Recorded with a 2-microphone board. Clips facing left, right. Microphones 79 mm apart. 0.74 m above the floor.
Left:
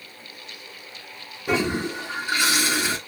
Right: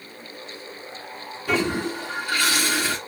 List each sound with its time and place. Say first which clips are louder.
1.5 s a toilet flushing: even; 20° left (ahead or behind), 1.2 m